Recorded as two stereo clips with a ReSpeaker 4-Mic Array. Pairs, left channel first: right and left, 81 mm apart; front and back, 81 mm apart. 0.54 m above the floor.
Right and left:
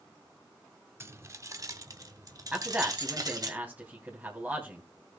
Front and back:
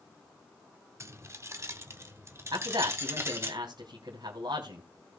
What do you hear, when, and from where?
1.0 s keys jangling: 140° left, 0.6 m; by 3.5 s 125° left, 1.8 m
2.5 s a man speaking: 160° left, 3 m